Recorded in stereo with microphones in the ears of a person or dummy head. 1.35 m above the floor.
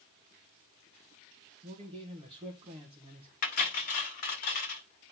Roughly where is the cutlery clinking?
Left.